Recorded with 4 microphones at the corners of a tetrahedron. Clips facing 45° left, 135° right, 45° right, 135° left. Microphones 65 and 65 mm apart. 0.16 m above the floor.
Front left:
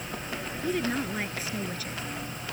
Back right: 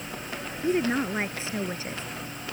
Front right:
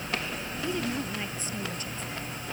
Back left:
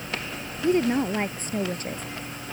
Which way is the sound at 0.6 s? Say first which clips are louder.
Back right 5 dB, back left 10 dB; 165° left.